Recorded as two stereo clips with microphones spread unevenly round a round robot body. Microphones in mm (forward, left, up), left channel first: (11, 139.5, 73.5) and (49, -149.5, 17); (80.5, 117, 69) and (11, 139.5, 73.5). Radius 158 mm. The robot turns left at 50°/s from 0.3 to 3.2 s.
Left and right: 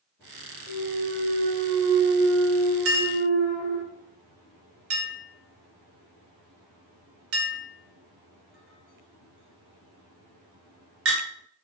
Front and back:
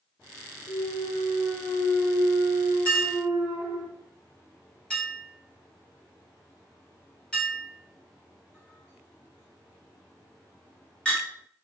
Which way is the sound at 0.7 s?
10° right.